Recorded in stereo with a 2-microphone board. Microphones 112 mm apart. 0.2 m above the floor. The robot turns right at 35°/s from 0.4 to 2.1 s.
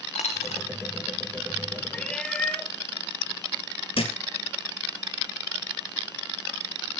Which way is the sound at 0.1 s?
90° left.